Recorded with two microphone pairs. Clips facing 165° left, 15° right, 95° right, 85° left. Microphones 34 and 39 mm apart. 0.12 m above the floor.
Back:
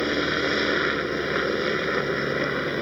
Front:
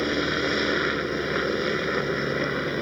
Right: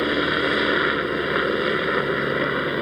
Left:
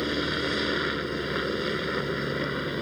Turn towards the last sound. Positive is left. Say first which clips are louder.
# back 1 dB, right 7 dB
turn(degrees=-120)